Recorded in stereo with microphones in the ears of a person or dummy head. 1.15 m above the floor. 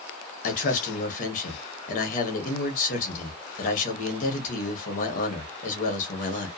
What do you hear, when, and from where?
0.4 s a man speaking: 50° left (ahead or behind), 1.2 m